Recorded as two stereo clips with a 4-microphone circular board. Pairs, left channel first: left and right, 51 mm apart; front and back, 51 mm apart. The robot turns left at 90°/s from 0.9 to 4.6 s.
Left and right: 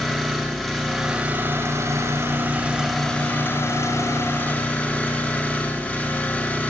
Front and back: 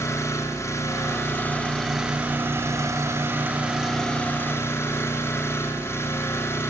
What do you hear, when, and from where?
0.0 s an engine running: 10° left, 7 m; by 6.7 s 35° left, 7 m